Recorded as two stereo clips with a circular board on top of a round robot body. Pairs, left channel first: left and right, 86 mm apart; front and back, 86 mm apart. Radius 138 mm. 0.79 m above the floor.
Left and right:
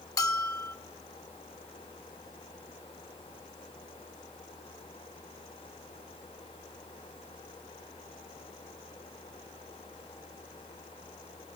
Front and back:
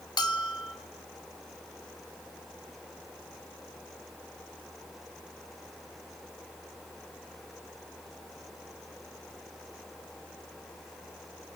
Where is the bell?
40° left, 2.5 m.